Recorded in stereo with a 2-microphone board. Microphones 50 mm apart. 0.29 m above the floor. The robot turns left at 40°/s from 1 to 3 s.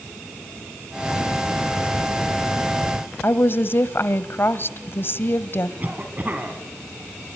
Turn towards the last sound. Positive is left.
turn(degrees=-35)  # may be behind; listen again after turning